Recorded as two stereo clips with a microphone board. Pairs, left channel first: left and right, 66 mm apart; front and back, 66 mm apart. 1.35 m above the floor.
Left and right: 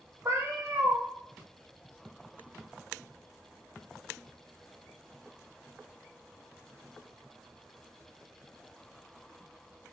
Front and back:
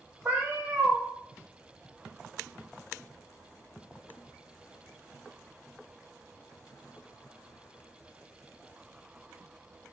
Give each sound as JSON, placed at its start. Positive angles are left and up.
{"t": 0.2, "sound": "a cat meowing", "azimuth_deg": -120, "distance_m": 0.8}